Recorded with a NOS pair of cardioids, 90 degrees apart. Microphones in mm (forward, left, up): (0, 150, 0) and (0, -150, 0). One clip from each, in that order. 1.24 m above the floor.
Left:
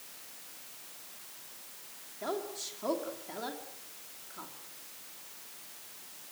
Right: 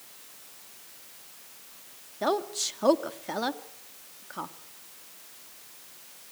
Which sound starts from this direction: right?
A woman speaking, at 2.2 s.